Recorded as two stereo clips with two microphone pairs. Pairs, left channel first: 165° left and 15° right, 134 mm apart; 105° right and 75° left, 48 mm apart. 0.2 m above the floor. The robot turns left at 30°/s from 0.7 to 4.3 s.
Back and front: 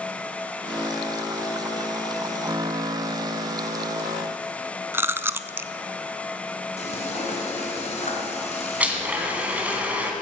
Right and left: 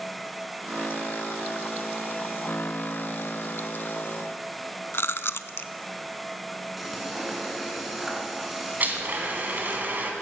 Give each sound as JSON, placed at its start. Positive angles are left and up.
{"t": 4.9, "sound": "chewing", "azimuth_deg": -85, "distance_m": 0.5}
{"t": 6.8, "sound": "frying", "azimuth_deg": 165, "distance_m": 2.5}
{"t": 8.8, "sound": "a blender", "azimuth_deg": 60, "distance_m": 1.9}